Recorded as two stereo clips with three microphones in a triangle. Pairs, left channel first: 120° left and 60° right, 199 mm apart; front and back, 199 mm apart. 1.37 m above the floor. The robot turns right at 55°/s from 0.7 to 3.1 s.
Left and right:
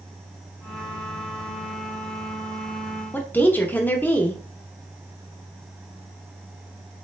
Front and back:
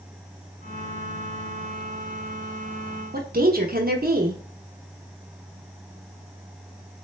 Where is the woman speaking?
160° right, 0.6 m.